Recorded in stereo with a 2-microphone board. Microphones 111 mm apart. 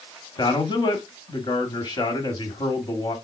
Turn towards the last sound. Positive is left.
turn(degrees=40)  # may be behind; listen again after turning